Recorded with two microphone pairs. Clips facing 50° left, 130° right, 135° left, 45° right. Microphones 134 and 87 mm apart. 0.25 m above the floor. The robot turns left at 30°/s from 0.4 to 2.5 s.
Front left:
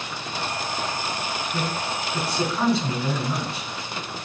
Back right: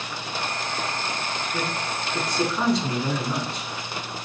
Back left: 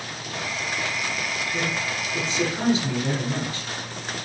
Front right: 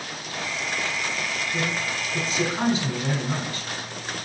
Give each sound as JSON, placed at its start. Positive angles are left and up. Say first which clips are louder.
{"t": 1.5, "sound": "a man speaking", "louder": "front left 1 dB, even", "azimuth_deg": 0, "distance_m": 1.1}